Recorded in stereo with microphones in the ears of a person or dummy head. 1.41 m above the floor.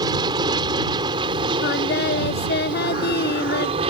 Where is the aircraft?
25° right (ahead or behind); by 3.9 s 35° right (ahead or behind).